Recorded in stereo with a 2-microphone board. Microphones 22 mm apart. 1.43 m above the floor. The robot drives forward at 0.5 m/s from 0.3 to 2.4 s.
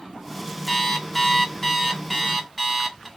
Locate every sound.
0.7 s an alarm clock: 10° left (ahead or behind), 0.5 m; by 3.1 s 5° left (ahead or behind), 0.9 m